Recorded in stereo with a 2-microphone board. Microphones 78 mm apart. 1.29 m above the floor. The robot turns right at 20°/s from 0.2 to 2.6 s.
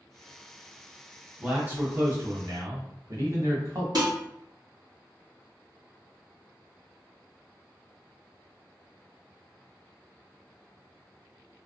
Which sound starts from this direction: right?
Dishes clattering, at 4.0 s.